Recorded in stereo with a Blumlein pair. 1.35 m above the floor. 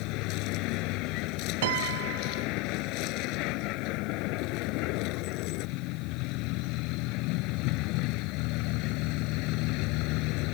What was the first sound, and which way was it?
A vehicle, 40° left.